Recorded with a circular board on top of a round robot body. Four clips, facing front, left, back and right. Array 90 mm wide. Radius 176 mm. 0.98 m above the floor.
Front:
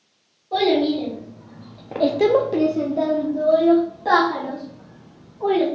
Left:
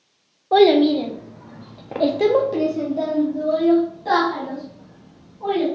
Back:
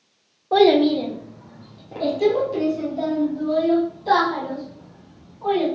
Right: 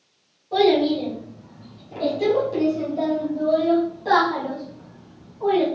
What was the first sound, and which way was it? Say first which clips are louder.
A child speaking: left 4 dB, back 4 dB; 130° left.